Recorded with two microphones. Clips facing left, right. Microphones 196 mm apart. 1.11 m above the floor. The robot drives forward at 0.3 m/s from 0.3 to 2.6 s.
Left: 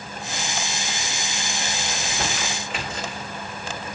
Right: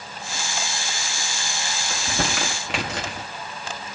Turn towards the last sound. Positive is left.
turn(degrees=-80)